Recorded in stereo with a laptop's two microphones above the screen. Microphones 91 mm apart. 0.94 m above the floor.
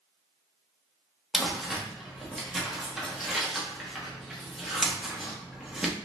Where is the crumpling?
Centre (ahead or behind), 0.8 m.